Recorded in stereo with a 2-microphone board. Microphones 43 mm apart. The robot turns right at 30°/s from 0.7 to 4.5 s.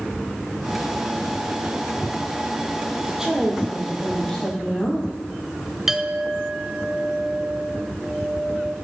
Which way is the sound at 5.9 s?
10° right (ahead or behind).